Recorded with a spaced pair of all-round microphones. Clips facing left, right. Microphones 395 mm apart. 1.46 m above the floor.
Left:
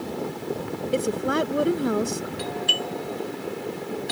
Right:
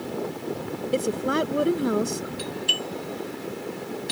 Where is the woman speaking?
Centre (ahead or behind).